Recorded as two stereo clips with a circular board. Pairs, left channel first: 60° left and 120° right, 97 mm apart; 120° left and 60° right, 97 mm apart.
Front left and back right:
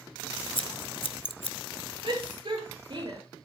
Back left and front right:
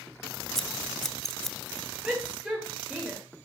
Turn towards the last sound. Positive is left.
turn(degrees=-140)